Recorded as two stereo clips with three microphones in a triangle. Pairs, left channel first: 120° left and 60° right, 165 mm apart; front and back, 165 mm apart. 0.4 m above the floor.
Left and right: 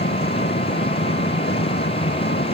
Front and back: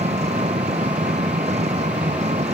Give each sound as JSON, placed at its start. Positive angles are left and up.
{"t": 0.0, "sound": "an engine running", "azimuth_deg": 130}